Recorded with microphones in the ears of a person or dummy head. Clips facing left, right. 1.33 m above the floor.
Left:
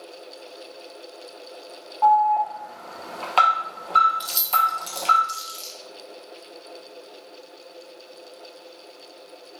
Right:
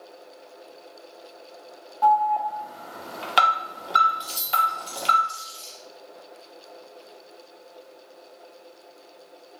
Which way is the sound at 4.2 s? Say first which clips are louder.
Left 1 dB; 25° left (ahead or behind).